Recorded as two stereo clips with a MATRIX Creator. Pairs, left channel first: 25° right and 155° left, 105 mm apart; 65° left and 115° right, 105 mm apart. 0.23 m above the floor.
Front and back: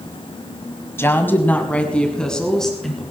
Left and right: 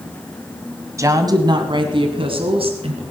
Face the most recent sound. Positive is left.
turn(degrees=-110)